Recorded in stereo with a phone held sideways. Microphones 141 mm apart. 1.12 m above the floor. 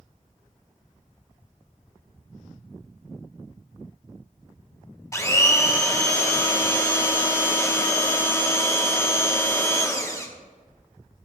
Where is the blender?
20° left (ahead or behind), 1.1 m.